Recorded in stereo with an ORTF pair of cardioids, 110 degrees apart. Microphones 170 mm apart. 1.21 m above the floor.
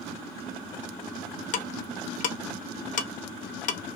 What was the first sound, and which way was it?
Ticking, 55° left.